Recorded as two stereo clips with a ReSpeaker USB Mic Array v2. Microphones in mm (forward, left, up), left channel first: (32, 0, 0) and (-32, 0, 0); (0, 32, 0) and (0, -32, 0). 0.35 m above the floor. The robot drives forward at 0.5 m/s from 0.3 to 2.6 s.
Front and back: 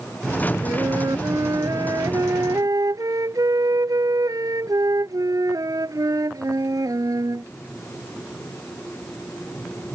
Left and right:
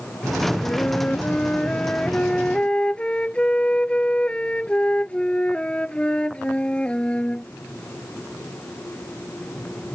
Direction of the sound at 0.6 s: 160° left.